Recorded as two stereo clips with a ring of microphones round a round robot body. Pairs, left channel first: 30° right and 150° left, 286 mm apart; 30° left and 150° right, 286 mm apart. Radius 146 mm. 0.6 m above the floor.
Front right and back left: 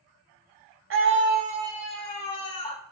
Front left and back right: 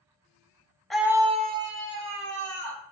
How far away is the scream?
About 1.0 m.